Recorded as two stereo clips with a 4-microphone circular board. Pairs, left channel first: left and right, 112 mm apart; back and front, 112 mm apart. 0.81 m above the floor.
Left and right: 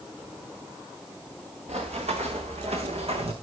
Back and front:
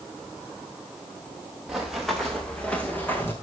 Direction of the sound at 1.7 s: 85° right.